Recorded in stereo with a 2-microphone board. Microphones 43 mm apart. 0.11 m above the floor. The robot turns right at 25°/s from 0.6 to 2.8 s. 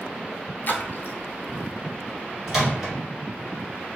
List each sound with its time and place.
0.7 s a splash: 55° left (ahead or behind), 0.5 m
2.5 s a microwave: 10° right (ahead or behind), 1.4 m